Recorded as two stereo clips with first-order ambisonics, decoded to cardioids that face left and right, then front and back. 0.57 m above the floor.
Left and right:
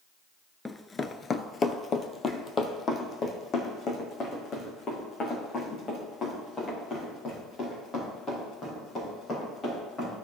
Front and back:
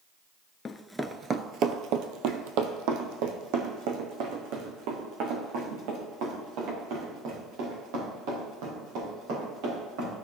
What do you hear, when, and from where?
0.7 s running footsteps: 20° left, 0.5 m; by 10.2 s 160° left, 6.5 m